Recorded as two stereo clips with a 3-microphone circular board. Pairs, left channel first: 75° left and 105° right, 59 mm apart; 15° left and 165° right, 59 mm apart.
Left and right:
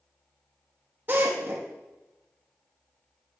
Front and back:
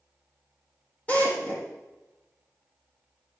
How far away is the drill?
About 5.5 m.